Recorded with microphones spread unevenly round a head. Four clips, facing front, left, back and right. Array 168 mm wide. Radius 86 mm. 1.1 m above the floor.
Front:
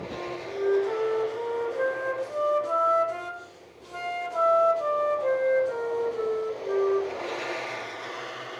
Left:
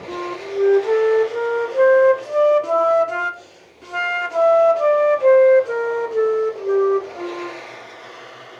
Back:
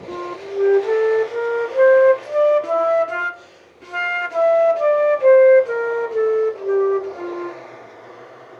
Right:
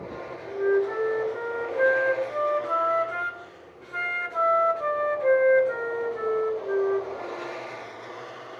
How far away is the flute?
About 1.6 m.